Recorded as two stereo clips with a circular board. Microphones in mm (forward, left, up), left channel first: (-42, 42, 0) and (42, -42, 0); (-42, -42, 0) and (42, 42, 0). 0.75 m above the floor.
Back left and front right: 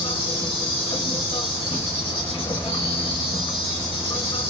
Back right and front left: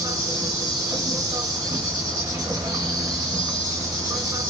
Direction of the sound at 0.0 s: 100° left.